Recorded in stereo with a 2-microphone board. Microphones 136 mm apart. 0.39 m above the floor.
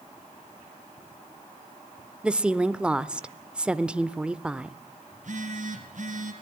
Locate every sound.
2.2 s a woman speaking: 5° right (ahead or behind), 0.8 m
5.1 s a phone buzzing: 60° right (ahead or behind), 4 m